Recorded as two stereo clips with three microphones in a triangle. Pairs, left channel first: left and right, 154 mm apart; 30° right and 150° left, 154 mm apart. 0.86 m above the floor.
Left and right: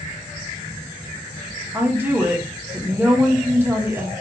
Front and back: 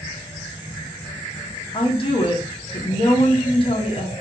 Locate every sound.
1.7 s a woman speaking: 20° right, 0.6 m